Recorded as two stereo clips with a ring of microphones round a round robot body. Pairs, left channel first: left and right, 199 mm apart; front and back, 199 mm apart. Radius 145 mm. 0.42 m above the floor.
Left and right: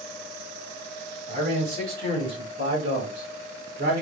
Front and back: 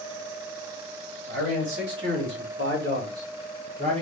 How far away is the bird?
I don't hear a bird.